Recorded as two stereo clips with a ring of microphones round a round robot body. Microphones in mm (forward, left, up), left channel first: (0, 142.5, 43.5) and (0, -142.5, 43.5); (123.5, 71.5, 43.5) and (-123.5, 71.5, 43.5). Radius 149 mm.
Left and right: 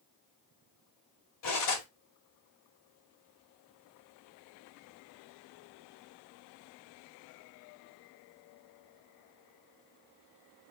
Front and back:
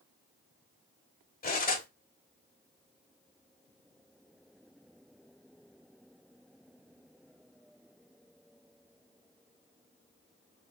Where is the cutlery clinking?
55° left, 1.9 m.